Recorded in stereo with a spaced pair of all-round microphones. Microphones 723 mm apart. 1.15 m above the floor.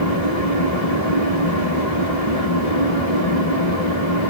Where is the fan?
65° left (ahead or behind), 3 m.